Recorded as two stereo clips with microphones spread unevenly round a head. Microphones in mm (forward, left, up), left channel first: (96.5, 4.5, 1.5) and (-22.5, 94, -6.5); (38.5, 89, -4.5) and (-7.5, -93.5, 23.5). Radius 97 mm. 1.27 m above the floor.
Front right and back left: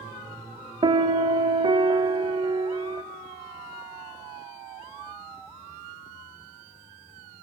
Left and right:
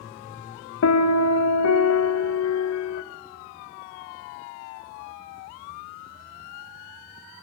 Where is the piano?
85° left, 0.8 m.